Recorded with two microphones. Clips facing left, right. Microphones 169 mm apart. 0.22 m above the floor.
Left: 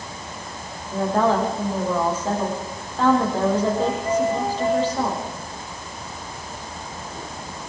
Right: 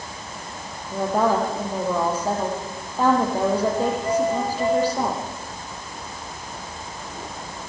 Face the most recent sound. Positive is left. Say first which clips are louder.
# left 1 dB
turn(degrees=-10)  # may be behind; listen again after turning